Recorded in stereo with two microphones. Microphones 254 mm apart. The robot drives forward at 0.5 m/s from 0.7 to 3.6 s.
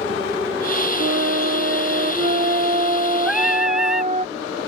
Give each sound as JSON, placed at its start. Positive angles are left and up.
{"t": 1.0, "sound": "a flute", "side_deg": -45}
{"t": 3.2, "sound": "singing", "side_deg": 0}